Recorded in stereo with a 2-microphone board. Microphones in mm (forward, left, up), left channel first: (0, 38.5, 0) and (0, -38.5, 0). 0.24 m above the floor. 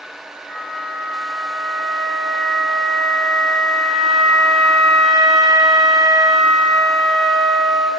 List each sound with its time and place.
0.5 s a flute: 10° left (ahead or behind), 1.5 m